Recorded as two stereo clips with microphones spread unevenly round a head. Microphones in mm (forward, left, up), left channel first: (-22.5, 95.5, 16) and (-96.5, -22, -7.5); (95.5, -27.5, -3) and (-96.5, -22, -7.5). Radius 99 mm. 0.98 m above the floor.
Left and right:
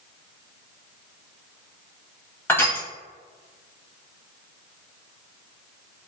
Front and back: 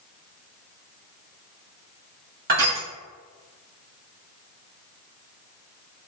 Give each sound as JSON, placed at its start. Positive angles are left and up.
{"t": 2.5, "sound": "crushing", "azimuth_deg": 135, "distance_m": 1.1}